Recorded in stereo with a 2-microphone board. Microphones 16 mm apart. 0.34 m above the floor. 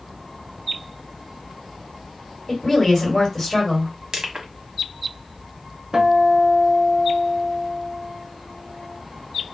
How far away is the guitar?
About 0.6 m.